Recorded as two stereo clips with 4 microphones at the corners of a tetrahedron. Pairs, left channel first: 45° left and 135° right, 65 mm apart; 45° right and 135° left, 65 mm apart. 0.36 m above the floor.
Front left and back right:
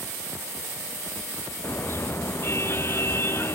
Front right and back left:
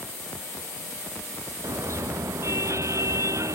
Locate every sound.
1.6 s a car horn: 95° left; by 3.6 s 100° left